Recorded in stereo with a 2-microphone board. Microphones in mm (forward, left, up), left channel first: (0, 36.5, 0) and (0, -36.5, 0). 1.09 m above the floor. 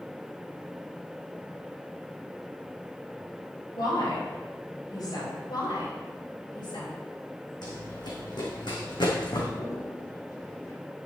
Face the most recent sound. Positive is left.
turn(degrees=60)  # may be behind; listen again after turning